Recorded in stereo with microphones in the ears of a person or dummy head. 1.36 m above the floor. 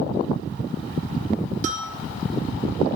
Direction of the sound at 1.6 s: 45° right (ahead or behind).